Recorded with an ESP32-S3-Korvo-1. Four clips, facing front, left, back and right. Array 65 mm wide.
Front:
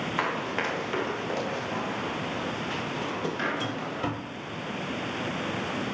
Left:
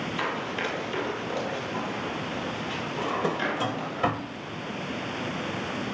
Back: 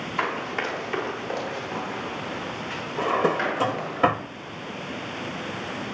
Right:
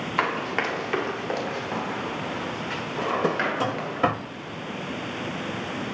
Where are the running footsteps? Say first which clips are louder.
Right 6 dB, back 3 dB; 80° right, 5.5 m; by 4.0 s 95° right, 9.5 m.